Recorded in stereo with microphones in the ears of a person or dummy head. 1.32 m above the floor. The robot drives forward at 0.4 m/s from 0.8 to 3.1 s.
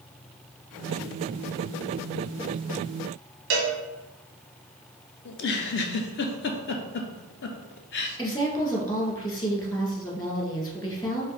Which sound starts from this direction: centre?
A woman speaking, at 8.2 s.